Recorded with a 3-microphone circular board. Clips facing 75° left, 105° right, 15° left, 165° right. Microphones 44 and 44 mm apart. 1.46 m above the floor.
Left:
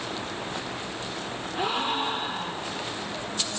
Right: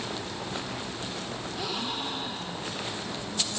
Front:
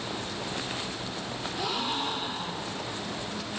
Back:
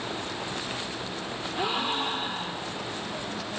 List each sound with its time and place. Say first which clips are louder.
1.6 s a gasp: left 8 dB, back 3 dB; 130° left, 5 m